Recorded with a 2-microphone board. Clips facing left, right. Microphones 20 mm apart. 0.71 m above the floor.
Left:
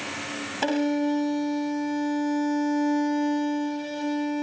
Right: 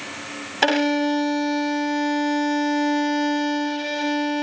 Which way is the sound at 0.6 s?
40° right (ahead or behind).